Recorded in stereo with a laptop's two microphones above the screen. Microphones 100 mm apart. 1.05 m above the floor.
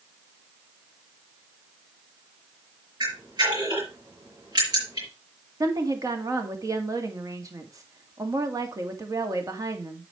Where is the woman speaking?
35° right (ahead or behind), 2 m.